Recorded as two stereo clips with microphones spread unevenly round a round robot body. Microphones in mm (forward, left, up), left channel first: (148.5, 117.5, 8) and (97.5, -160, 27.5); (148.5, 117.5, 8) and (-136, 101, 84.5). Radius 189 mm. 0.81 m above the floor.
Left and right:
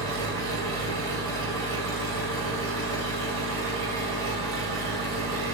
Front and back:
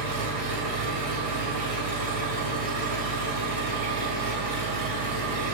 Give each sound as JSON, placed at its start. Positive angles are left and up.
{"t": 0.0, "sound": "an engine running", "azimuth_deg": -135, "distance_m": 2.0}